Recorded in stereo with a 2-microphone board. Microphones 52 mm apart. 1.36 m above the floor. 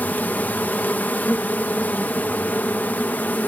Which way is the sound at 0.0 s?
35° left (ahead or behind).